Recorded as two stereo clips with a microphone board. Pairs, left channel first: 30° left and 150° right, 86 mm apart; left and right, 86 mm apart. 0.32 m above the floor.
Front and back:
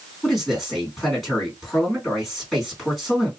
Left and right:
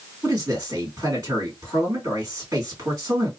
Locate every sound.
0.2 s a man speaking: 50° right, 1.9 m